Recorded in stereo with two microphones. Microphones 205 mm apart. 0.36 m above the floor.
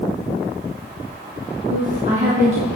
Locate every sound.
1.7 s a woman speaking: 35° right (ahead or behind), 3.5 m